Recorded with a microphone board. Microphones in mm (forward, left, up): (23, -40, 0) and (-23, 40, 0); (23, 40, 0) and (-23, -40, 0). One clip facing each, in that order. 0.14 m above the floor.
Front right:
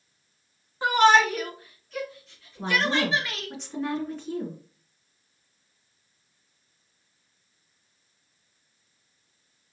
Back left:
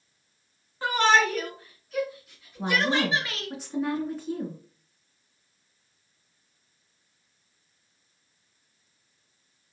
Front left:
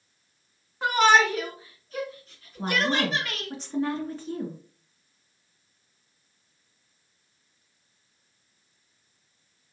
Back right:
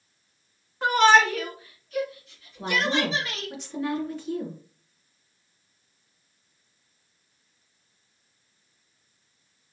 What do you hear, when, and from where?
0.8 s a shout: 25° right, 1.2 m; by 3.5 s 55° left, 2 m
2.6 s a woman speaking: 40° left, 2.0 m